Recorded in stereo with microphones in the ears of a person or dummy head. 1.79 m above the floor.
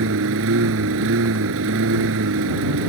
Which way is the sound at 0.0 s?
70° right (ahead or behind).